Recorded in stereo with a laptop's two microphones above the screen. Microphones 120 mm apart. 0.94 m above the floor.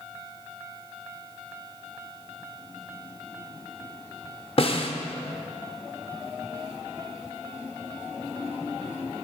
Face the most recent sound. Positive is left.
turn(degrees=50)  # may be behind; listen again after turning